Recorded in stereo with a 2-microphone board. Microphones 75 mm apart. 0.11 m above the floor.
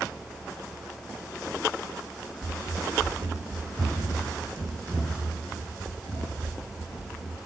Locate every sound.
2.4 s running footsteps: 65° right (ahead or behind), 1.2 m; by 7.4 s 75° right (ahead or behind), 4.5 m